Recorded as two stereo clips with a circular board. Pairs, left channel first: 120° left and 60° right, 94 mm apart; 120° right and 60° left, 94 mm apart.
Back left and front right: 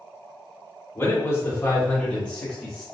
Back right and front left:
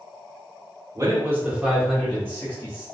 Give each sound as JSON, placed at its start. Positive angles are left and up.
{"t": 0.9, "sound": "a man speaking", "azimuth_deg": 80, "distance_m": 1.3}